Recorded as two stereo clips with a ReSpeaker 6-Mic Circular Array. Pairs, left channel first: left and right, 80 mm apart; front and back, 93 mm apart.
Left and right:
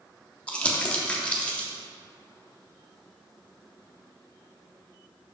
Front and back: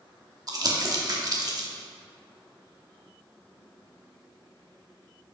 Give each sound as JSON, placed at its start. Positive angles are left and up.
{"t": 0.5, "sound": "crumpling", "azimuth_deg": 160, "distance_m": 1.1}